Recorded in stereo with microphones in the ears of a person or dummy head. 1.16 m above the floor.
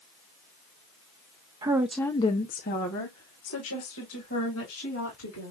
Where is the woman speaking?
20° right (ahead or behind), 0.7 m; by 5.5 s 75° left (ahead or behind), 3 m.